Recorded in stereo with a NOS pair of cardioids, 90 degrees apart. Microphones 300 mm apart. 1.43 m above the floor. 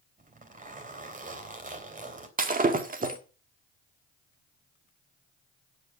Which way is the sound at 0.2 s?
25° right.